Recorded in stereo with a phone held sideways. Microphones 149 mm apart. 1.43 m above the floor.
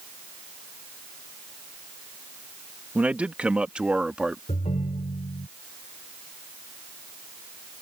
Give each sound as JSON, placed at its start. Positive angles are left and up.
{"t": 3.0, "sound": "a man speaking", "side_deg": -10}
{"t": 4.5, "sound": "a ringtone", "side_deg": 55}